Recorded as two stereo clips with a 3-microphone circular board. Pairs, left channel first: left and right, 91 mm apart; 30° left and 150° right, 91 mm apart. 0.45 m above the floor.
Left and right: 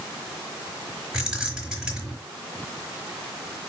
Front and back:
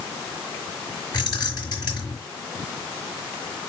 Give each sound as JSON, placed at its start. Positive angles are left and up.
{"t": 1.1, "sound": "keys jangling", "azimuth_deg": -10, "distance_m": 4.5}